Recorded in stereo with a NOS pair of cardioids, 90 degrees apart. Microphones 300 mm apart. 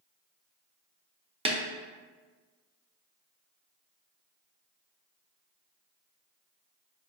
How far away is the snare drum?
About 0.6 m.